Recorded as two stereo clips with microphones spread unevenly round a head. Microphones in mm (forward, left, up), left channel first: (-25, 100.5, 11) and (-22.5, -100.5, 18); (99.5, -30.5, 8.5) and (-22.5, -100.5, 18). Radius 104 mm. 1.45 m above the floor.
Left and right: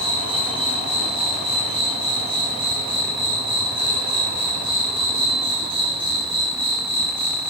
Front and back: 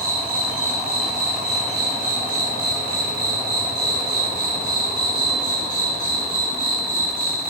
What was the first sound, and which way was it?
An insect, 155° right.